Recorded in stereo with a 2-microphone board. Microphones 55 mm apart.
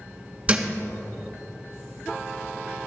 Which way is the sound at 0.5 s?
25° right (ahead or behind).